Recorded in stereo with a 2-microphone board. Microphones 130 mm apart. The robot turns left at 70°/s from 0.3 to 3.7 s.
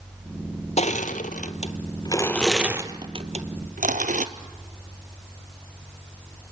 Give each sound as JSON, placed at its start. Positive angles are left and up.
{"t": 0.8, "sound": "crushing", "side_deg": 60, "distance_m": 1.3}